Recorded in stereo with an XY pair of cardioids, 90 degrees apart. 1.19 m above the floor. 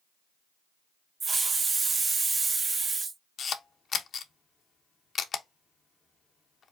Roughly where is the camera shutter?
Ahead left.